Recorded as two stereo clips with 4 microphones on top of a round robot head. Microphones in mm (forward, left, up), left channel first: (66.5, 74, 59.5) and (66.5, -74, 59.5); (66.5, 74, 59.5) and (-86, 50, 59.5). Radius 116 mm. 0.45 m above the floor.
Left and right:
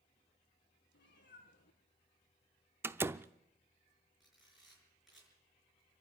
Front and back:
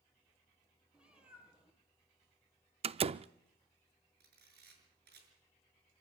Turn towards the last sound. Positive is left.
turn(degrees=180)